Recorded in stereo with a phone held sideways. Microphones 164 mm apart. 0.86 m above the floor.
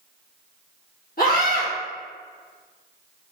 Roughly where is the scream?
Left.